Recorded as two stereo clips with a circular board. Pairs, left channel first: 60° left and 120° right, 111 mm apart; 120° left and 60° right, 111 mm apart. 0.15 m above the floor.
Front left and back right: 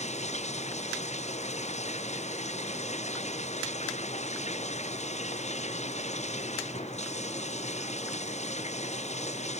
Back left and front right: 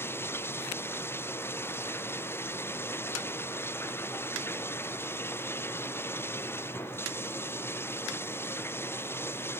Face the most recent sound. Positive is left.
turn(degrees=50)